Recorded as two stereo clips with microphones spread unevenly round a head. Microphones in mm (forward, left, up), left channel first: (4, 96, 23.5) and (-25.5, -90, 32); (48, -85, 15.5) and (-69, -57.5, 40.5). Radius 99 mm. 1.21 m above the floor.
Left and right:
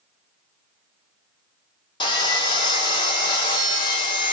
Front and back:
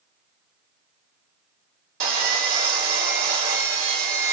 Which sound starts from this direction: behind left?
Sawing, at 2.0 s.